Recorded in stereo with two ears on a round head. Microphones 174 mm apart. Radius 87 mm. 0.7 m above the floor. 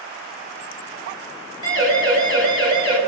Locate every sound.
1.6 s a siren: 20° right (ahead or behind), 8 m; by 3.0 s 25° right (ahead or behind), 7 m